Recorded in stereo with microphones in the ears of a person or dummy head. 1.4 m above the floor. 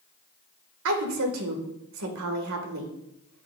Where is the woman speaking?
75° right (ahead or behind), 1.6 m.